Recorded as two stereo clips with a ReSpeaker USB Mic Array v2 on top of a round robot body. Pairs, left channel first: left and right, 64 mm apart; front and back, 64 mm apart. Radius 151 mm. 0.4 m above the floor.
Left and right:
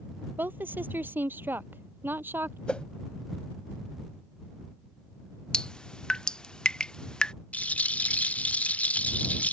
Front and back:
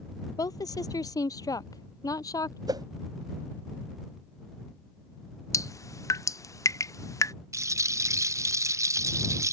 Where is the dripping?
15° left.